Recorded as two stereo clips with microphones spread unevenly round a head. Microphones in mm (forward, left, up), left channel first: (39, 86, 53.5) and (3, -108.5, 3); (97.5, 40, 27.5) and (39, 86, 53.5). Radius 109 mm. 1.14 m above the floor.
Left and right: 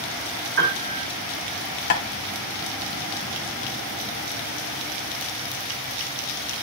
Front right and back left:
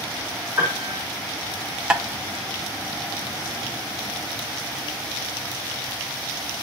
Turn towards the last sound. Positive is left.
turn(degrees=85)